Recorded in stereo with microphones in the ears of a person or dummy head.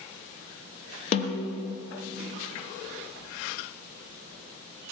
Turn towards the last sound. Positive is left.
turn(degrees=35)  # may be behind; listen again after turning